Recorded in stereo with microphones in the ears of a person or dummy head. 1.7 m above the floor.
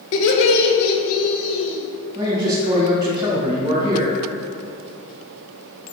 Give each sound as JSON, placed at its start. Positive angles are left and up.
{"t": 0.1, "sound": "laughter", "side_deg": 60, "distance_m": 1.3}
{"t": 2.1, "sound": "a man speaking", "side_deg": -25, "distance_m": 1.8}